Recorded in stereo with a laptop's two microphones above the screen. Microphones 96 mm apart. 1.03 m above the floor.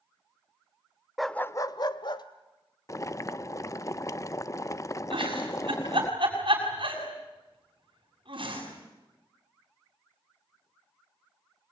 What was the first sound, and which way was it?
A dog barking, centre (ahead or behind).